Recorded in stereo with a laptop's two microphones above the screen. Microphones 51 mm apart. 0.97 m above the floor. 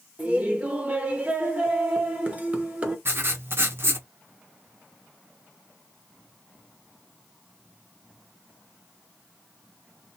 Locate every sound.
0.2 s laughter: 25° right (ahead or behind), 0.9 m
3.0 s writing: 50° right (ahead or behind), 0.7 m